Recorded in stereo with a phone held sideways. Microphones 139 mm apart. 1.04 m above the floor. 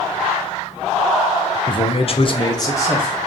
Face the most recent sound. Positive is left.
turn(degrees=20)  # may be behind; listen again after turning